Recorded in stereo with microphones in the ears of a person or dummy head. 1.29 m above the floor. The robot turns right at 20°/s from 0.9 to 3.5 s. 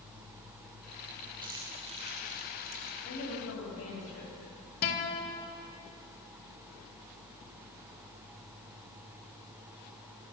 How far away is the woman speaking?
About 8.5 m.